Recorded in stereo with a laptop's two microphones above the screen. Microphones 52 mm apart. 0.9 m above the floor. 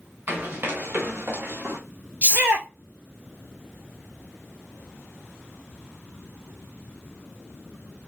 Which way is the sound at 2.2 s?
40° right (ahead or behind).